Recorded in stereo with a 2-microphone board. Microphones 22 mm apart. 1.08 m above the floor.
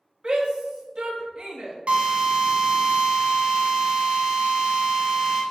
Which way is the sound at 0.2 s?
40° right (ahead or behind).